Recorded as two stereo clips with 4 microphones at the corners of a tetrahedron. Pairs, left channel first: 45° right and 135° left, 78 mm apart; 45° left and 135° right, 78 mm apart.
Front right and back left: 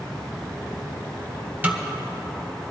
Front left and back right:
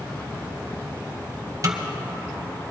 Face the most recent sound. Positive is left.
turn(degrees=-160)